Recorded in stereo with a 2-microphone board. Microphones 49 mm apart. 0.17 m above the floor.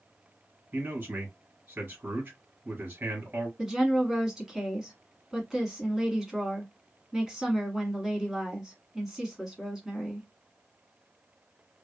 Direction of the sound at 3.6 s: 10° right (ahead or behind).